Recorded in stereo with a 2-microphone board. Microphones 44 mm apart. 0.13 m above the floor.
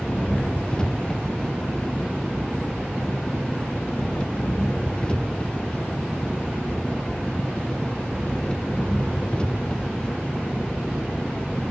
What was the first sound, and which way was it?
An engine running, 20° left (ahead or behind).